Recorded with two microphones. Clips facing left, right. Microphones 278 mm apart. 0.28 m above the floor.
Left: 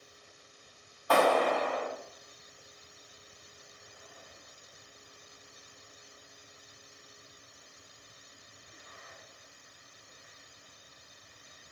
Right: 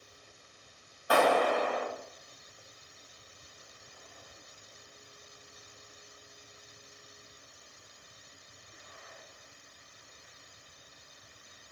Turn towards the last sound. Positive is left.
turn(degrees=-20)  # may be behind; listen again after turning